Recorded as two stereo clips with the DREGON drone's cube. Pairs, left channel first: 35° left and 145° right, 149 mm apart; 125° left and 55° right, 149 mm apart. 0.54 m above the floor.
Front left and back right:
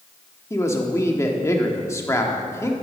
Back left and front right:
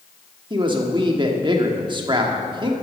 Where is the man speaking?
25° right, 1.2 m.